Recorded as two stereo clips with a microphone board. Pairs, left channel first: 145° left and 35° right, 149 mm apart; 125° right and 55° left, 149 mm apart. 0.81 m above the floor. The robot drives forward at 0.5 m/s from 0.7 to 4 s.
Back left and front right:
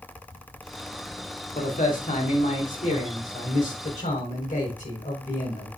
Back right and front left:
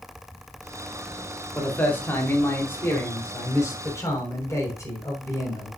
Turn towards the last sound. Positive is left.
turn(degrees=165)